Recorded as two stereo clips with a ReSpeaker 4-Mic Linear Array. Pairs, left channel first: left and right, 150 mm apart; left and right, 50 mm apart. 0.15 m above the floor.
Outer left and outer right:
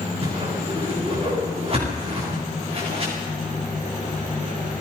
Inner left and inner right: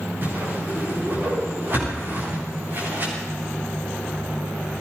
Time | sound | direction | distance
0.2 | a whoosh | 45° right (ahead or behind) | 10 m